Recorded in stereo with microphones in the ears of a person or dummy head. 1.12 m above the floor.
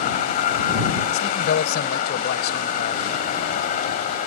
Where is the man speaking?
60° left (ahead or behind).